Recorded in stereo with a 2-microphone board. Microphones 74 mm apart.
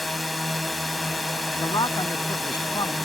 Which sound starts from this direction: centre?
A drone, at 0.0 s.